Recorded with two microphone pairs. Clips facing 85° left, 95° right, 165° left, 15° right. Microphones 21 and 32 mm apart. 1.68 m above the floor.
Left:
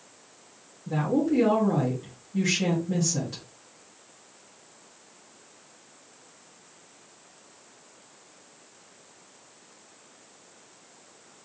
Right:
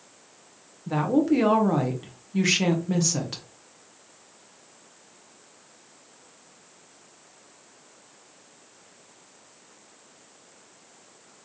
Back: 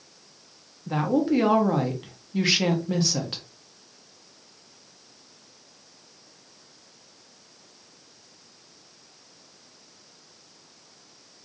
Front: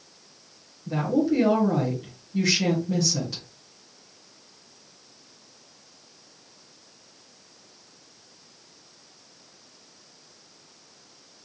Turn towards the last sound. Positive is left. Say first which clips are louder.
# right 3 dB, even
turn(degrees=-145)